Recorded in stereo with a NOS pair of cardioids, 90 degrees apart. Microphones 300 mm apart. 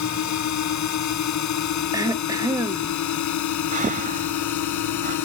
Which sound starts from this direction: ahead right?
Breathing, at 3.7 s.